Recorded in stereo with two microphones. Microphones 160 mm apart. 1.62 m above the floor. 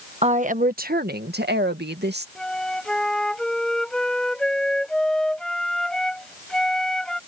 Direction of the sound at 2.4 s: 5° left (ahead or behind).